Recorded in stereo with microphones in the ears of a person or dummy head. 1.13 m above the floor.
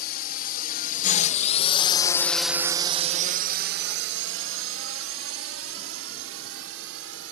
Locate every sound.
0.0 s a drone: 55° left (ahead or behind); by 7.3 s 80° right